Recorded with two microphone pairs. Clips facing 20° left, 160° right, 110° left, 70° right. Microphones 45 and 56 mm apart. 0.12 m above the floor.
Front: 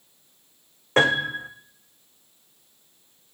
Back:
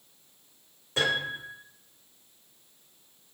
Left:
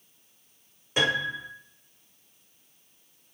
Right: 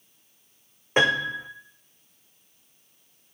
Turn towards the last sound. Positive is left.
turn(degrees=-15)